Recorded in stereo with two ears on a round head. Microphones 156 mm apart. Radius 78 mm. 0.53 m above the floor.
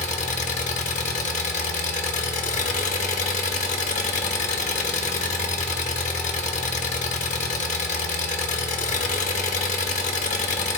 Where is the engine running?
45° left (ahead or behind), 0.8 m.